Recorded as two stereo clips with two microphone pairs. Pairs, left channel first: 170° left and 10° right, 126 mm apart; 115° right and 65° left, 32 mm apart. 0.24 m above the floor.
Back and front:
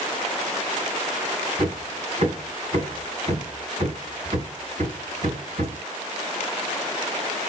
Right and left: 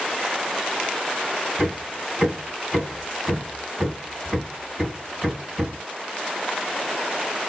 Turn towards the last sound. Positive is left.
turn(degrees=0)